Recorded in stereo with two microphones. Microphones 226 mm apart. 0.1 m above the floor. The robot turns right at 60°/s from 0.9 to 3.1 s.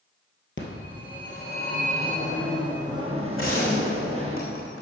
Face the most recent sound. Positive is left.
turn(degrees=65)  # may be behind; listen again after turning